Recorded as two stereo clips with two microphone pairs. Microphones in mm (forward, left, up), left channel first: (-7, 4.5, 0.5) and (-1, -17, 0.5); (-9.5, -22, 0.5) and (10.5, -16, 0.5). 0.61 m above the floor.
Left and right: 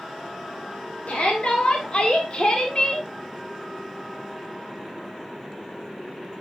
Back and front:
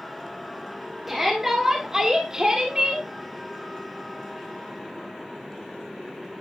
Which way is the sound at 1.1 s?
95° left.